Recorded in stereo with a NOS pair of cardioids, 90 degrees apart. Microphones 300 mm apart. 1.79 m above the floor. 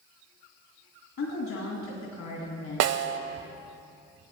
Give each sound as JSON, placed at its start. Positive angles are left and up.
{"t": 1.2, "sound": "a woman speaking", "azimuth_deg": 65, "distance_m": 2.5}
{"t": 2.8, "sound": "a snare drum", "azimuth_deg": -55, "distance_m": 0.7}